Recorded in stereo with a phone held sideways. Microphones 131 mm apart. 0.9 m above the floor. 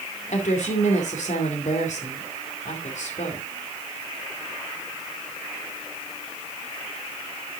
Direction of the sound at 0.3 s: 70° left (ahead or behind).